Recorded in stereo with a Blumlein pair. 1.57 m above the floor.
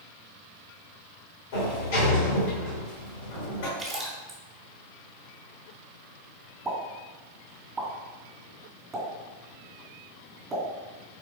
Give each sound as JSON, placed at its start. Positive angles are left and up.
{"t": 1.5, "sound": "a sliding door", "azimuth_deg": 50, "distance_m": 2.0}
{"t": 3.8, "sound": "a splash", "azimuth_deg": -10, "distance_m": 2.0}
{"t": 6.7, "sound": "a pop", "azimuth_deg": -15, "distance_m": 2.0}